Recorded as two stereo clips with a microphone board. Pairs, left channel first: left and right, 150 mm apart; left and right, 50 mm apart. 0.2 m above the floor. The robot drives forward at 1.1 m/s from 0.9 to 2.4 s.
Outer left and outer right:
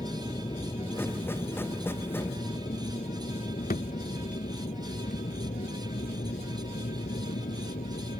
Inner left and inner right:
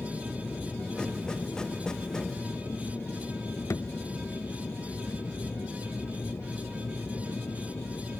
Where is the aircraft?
35° left (ahead or behind); by 8.2 s 70° left (ahead or behind).